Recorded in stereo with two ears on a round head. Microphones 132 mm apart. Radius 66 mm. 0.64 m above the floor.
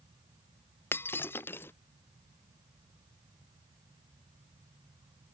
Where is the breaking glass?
15° left (ahead or behind).